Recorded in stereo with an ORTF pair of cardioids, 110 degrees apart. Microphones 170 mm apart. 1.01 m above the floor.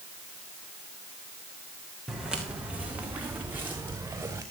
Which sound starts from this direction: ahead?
Footsteps, at 2.1 s.